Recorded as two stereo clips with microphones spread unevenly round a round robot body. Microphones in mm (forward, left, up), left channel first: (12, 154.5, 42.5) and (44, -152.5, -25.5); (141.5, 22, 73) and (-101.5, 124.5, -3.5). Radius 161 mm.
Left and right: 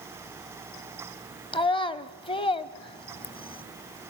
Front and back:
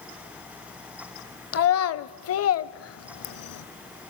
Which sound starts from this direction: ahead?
A child speaking, at 1.5 s.